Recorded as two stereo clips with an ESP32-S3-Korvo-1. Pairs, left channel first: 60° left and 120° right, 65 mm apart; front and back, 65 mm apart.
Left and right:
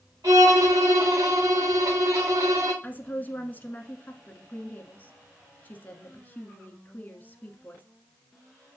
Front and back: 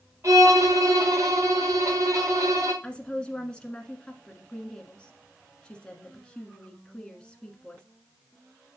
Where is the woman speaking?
55° left, 1.3 m.